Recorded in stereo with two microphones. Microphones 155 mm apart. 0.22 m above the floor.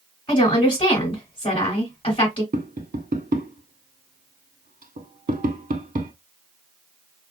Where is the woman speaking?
35° left (ahead or behind), 1.6 m.